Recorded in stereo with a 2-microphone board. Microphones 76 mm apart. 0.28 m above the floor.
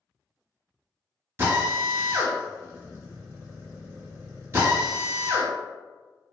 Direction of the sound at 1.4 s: 30° right (ahead or behind).